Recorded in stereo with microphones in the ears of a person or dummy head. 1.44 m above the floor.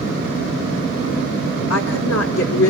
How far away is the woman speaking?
About 4.5 m.